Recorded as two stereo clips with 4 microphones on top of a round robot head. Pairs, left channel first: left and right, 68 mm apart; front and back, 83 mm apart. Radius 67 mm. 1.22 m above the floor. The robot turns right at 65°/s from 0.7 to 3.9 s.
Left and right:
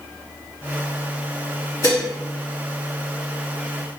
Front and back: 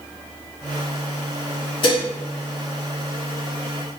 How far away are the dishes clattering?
About 0.8 m.